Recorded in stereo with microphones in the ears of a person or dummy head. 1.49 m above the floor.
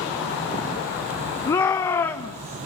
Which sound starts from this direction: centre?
A shout, at 1.5 s.